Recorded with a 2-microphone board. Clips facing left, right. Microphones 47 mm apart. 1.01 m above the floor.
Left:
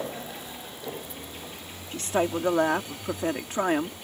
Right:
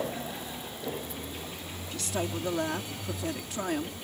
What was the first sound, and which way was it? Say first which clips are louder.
A woman speaking: left 7 dB; 40° left (ahead or behind).